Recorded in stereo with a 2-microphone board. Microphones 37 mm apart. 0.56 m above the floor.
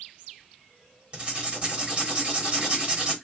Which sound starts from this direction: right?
Writing, at 1.1 s.